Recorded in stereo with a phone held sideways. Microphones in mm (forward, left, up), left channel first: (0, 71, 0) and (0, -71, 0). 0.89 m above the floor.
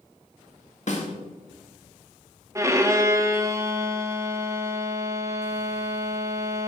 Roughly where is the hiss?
I don't hear a hiss.